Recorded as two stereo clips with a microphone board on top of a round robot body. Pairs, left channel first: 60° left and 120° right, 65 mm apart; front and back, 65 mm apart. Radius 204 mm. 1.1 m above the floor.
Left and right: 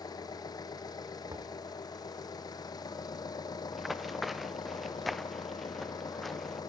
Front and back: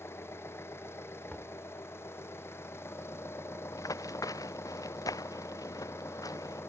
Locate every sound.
0.0 s an engine running: 50° left
1.3 s knocking: 75° right
3.7 s running footsteps: 30° right; by 6.6 s 25° right